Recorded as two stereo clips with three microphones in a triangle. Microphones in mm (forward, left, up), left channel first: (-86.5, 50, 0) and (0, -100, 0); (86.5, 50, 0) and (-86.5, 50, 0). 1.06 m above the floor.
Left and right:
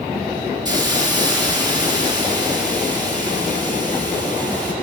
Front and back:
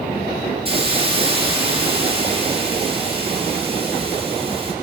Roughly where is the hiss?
Behind right.